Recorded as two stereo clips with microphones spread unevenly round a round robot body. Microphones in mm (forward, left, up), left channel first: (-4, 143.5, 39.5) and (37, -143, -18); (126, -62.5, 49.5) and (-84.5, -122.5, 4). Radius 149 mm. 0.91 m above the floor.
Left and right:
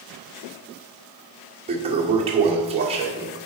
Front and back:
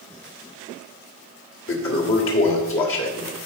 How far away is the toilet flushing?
About 1.6 m.